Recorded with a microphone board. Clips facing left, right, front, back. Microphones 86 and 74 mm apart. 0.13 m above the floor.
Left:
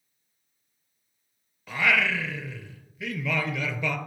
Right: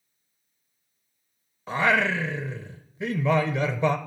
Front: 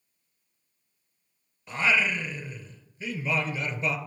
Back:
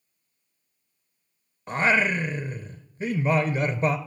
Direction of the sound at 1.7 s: 145° right.